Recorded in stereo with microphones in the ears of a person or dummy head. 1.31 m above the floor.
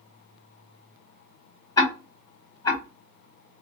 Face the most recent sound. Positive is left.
turn(degrees=25)  # may be behind; listen again after turning